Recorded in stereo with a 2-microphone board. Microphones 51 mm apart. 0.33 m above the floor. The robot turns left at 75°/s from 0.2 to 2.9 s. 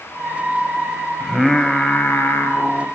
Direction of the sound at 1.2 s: 160° right.